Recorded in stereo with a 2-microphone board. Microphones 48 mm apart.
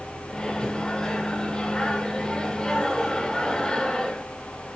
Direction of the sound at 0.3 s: 15° left (ahead or behind).